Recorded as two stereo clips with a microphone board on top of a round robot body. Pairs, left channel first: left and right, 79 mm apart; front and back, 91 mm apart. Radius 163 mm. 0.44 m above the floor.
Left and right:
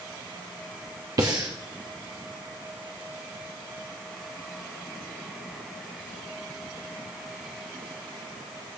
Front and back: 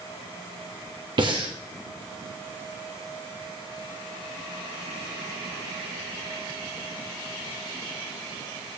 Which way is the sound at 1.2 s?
140° right.